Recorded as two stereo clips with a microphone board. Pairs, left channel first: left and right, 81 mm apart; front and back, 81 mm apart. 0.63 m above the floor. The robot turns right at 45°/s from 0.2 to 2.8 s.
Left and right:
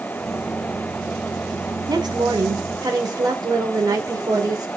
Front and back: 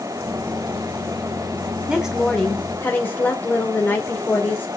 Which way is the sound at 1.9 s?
105° right.